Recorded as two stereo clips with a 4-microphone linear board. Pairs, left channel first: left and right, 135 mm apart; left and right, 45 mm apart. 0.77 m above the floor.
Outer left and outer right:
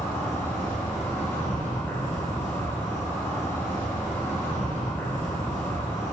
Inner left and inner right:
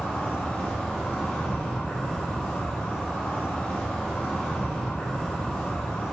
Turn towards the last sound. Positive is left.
turn(degrees=20)  # may be behind; listen again after turning